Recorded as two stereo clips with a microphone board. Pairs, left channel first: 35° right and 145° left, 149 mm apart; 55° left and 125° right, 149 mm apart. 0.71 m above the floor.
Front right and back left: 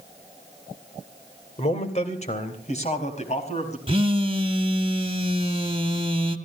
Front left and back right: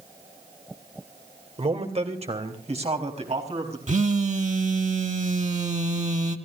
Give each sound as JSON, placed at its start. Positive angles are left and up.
{"t": 1.6, "sound": "a man speaking", "azimuth_deg": -75, "distance_m": 2.5}
{"t": 3.9, "sound": "a phone buzzing", "azimuth_deg": -160, "distance_m": 1.5}